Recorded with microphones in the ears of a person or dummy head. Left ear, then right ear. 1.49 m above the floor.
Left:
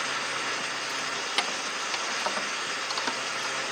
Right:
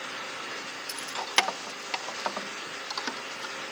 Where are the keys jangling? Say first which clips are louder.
Right 5 dB; 50° right (ahead or behind), 0.8 m; by 3.5 s 10° left (ahead or behind), 1.6 m.